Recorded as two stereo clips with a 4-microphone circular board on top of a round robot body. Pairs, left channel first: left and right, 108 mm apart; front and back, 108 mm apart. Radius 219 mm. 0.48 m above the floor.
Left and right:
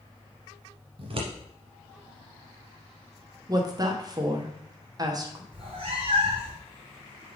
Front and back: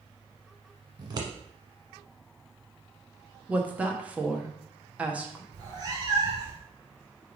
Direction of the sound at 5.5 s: 130° right.